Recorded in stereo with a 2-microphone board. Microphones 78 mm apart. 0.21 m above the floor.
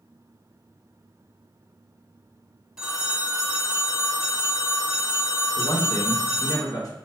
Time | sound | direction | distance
2.8 | a phone ringing | 10° right (ahead or behind) | 1.1 m
5.6 | a man speaking | 50° left (ahead or behind) | 1.8 m